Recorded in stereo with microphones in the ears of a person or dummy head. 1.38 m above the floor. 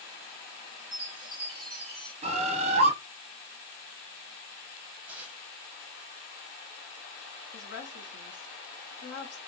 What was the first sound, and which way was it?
A chime, 10° left (ahead or behind).